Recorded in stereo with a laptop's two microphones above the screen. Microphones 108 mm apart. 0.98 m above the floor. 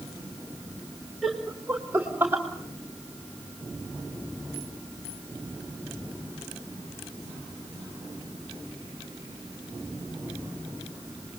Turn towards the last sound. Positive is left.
turn(degrees=-20)  # may be behind; listen again after turning